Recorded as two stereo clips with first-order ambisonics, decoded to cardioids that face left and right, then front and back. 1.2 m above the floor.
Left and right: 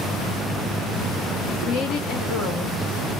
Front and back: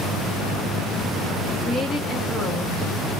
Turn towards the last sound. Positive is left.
turn(degrees=80)